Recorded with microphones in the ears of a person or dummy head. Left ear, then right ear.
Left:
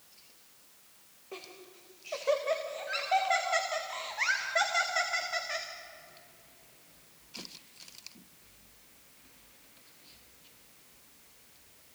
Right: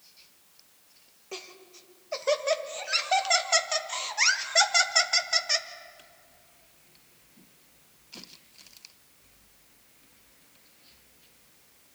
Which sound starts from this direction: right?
Laughter, at 1.3 s.